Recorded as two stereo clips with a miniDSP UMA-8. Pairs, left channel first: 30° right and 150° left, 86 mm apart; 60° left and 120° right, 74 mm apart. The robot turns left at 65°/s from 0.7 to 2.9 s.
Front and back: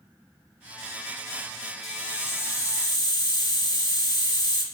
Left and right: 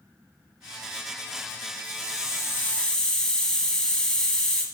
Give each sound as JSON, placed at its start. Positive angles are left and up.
{"t": 1.8, "sound": "a hiss", "azimuth_deg": 55, "distance_m": 0.7}